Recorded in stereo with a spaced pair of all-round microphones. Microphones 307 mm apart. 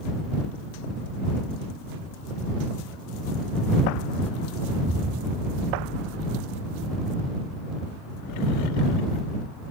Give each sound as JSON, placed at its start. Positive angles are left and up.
{"t": 4.8, "sound": "an explosion", "side_deg": -75}